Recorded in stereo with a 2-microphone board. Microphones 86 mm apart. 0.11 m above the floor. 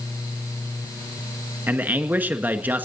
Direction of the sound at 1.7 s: 20° right (ahead or behind).